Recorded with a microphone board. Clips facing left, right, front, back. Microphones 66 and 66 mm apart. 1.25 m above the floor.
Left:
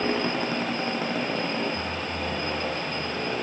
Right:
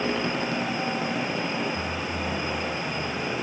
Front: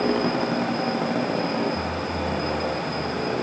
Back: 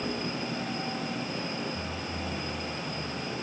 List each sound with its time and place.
0.0 s a motorcycle: 15° left